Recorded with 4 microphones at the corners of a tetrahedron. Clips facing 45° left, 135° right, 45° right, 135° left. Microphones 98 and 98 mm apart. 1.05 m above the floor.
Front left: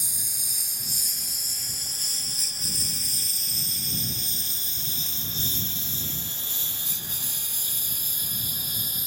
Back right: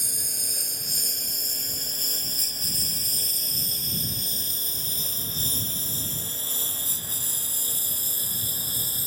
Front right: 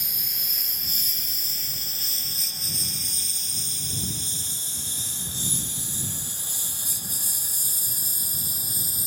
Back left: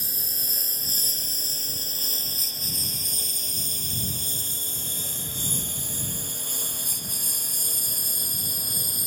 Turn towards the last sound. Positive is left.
turn(degrees=170)